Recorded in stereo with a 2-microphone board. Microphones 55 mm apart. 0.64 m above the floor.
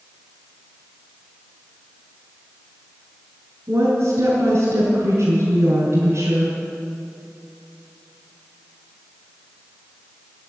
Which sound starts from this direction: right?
A woman speaking, at 3.7 s.